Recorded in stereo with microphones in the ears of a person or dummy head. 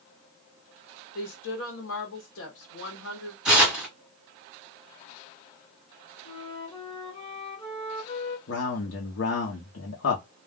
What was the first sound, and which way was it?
A woman speaking, 75° left (ahead or behind).